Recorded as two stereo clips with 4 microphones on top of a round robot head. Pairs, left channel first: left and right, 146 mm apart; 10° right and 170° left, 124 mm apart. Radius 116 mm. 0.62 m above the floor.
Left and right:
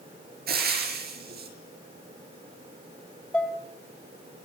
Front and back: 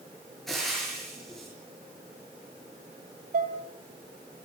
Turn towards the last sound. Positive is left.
turn(degrees=170)